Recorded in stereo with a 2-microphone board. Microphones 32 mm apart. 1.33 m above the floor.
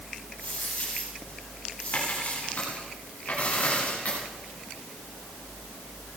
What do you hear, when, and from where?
0.4 s a dropped coin: 50° left (ahead or behind), 6.5 m